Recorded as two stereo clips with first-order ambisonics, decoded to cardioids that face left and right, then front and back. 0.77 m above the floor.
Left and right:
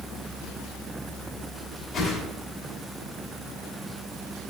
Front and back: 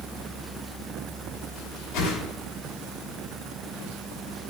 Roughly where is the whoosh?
Ahead left.